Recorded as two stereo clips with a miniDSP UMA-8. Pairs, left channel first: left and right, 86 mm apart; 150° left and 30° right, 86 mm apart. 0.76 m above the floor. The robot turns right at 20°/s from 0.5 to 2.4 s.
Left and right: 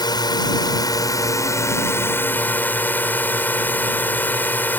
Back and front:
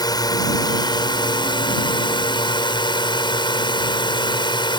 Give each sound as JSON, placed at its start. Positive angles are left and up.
{"t": 0.0, "sound": "a drone", "azimuth_deg": 120}